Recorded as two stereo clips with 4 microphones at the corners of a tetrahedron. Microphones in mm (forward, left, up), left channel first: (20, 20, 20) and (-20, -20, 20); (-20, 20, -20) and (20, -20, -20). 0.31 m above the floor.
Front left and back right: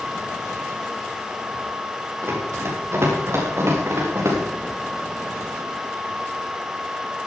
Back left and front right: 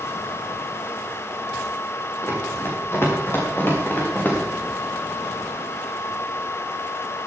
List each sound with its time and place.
2.2 s running footsteps: straight behind, 6.5 m; by 4.4 s 170° right, 6 m